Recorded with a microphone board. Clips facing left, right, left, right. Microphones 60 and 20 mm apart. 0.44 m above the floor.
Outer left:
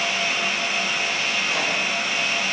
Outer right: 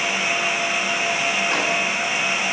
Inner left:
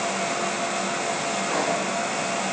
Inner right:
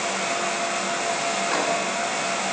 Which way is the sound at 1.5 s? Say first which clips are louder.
Outer right 3 dB, even; 50° right (ahead or behind).